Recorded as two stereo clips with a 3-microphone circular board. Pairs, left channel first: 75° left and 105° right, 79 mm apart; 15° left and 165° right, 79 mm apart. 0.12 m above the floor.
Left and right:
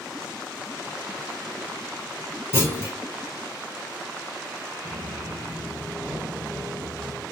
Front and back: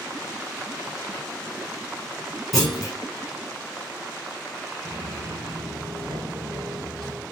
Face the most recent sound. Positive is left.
turn(degrees=155)